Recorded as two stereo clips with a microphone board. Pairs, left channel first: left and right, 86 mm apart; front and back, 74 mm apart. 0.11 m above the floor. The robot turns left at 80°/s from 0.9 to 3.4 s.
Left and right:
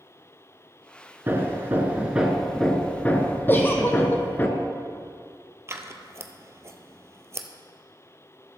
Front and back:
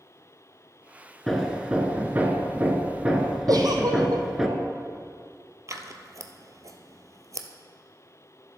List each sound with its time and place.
1.3 s hammering: 85° right, 1.0 m; by 4.5 s 105° left, 1.0 m
3.5 s a giggle: 155° left, 1.2 m
5.7 s scissors: 140° right, 0.7 m